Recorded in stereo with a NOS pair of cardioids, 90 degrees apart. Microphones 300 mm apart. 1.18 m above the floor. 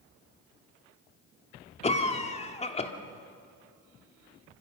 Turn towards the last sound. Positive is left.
turn(degrees=20)